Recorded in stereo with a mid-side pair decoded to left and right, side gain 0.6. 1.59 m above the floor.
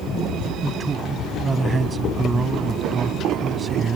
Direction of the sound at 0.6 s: 25° right.